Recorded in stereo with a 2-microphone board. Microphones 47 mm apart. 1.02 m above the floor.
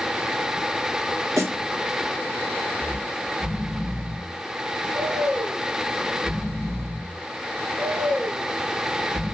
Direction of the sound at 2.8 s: 75° right (ahead or behind).